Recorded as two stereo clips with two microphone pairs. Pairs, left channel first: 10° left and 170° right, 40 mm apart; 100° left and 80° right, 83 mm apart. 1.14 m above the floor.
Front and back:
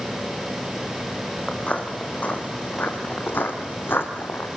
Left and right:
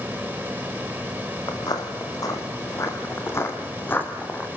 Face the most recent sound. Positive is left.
turn(degrees=30)